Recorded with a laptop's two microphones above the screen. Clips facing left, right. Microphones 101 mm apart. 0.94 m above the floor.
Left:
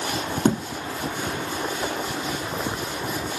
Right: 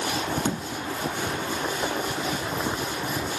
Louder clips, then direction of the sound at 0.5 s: Left 7 dB; 45° left (ahead or behind).